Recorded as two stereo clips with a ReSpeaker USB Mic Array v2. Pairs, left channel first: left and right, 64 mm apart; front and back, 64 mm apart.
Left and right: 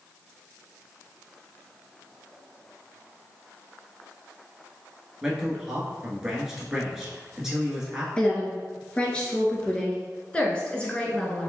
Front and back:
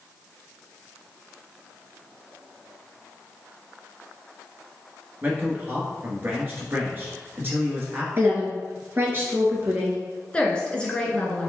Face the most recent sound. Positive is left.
turn(degrees=45)